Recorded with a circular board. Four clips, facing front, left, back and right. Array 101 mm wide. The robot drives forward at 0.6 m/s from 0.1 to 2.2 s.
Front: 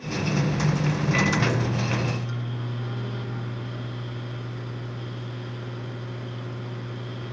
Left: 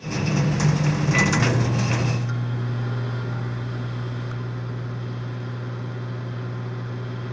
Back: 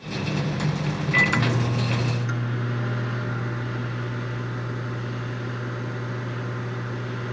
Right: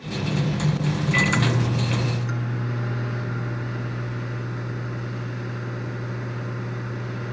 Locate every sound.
1.1 s a microwave: 140° right, 1.1 m; by 7.3 s 160° right, 1.5 m